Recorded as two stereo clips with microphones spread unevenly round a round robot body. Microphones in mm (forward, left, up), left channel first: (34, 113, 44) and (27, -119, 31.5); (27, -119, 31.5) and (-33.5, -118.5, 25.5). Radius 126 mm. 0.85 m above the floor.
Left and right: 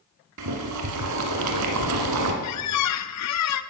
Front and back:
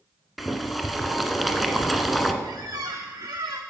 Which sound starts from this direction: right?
Boiling, at 0.4 s.